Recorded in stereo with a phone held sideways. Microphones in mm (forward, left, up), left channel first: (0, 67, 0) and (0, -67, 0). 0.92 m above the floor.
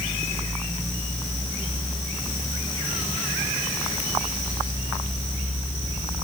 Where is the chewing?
No chewing in this recording.